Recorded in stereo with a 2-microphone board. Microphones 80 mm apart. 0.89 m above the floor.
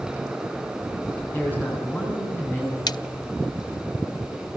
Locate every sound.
1.2 s a man speaking: 20° left (ahead or behind), 9 m
2.9 s a splash: 55° left (ahead or behind), 0.7 m